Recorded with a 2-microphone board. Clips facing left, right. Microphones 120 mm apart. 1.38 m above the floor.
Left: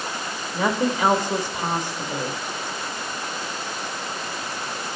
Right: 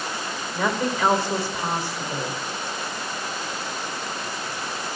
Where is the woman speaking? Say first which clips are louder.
Left 2 dB; 15° left (ahead or behind), 2.5 m.